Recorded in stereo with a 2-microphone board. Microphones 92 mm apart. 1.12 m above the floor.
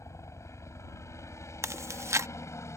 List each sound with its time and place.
0.0 s a helicopter: 35° left (ahead or behind)
1.6 s chewing: 35° right (ahead or behind)